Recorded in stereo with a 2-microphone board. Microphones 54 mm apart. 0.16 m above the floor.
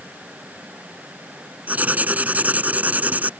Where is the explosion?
No explosion in this recording.